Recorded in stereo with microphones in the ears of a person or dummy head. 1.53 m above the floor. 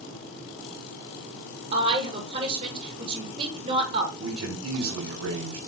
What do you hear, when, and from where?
1.7 s a woman speaking: 45° right (ahead or behind), 2.5 m
4.2 s a man speaking: 85° right, 3 m